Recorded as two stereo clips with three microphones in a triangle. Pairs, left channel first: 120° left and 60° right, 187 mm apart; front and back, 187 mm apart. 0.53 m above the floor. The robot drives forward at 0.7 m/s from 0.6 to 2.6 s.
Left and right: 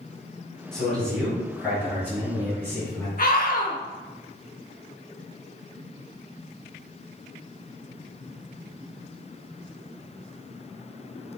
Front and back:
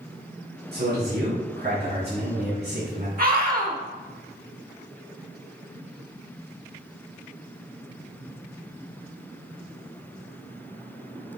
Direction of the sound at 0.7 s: 155° right.